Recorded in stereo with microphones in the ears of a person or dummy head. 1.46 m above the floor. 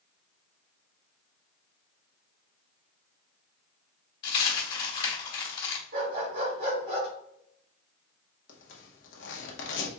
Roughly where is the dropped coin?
Left.